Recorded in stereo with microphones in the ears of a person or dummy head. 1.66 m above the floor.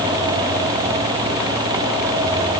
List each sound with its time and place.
Only background noise.